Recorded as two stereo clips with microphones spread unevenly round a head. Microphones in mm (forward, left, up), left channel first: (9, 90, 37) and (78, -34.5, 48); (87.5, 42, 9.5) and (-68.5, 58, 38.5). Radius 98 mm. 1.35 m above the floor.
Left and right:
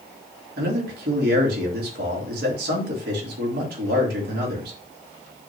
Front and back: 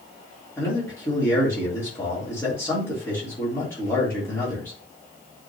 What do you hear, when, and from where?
0.6 s a man speaking: 85° right, 3.5 m